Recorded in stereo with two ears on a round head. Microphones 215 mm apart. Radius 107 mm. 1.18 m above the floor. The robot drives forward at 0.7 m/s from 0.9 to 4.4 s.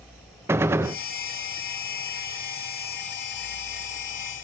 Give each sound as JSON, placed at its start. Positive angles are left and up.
{"t": 0.5, "sound": "a gunshot", "side_deg": -10, "distance_m": 0.7}